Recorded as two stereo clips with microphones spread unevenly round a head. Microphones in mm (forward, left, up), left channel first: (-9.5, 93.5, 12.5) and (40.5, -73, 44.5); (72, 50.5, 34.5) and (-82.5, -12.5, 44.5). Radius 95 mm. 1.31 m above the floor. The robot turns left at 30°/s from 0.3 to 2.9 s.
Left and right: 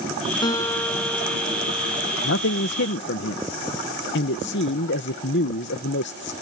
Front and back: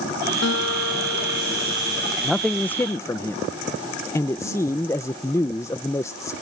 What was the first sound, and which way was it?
A guitar, 40° left.